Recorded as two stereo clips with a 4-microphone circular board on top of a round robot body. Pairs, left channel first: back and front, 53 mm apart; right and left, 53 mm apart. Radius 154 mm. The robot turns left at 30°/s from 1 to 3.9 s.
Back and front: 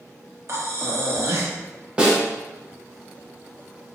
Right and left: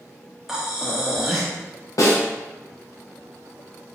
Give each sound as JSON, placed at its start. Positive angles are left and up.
{"t": 0.5, "sound": "breathing", "azimuth_deg": 10, "distance_m": 0.8}
{"t": 2.0, "sound": "a snare drum", "azimuth_deg": -75, "distance_m": 0.7}